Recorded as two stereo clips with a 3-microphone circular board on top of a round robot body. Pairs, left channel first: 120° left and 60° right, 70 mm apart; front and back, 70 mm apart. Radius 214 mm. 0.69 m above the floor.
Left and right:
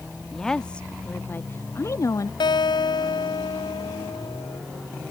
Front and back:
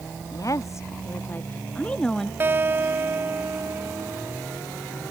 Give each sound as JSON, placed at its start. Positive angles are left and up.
{"t": 0.3, "sound": "a woman speaking", "azimuth_deg": 35}
{"t": 2.4, "sound": "a guitar", "azimuth_deg": 115}